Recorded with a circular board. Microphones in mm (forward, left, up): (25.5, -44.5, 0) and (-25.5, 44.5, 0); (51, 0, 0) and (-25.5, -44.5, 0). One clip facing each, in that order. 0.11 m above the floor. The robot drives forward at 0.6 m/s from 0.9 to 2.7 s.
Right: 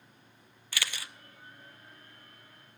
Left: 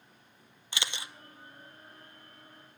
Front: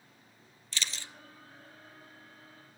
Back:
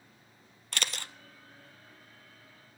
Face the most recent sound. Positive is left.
turn(degrees=180)